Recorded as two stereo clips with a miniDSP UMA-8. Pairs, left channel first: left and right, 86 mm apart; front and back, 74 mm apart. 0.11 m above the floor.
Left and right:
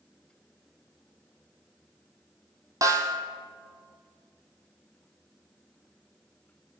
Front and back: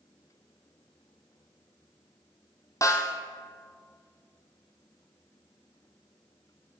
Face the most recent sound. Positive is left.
turn(degrees=-40)